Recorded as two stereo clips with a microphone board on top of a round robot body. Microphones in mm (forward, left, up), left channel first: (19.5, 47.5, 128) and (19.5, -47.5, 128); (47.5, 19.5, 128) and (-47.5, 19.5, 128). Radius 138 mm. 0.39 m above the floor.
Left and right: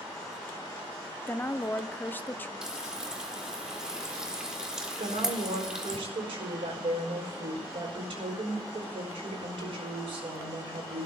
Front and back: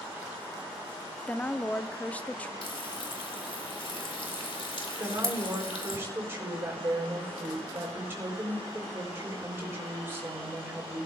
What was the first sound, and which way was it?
A woman speaking, 55° left.